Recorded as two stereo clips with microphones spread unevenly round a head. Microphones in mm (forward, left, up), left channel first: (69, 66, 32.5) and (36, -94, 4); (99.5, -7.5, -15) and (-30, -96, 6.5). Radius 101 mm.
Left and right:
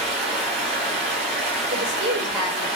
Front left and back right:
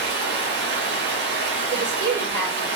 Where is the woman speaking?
130° right, 1.7 m.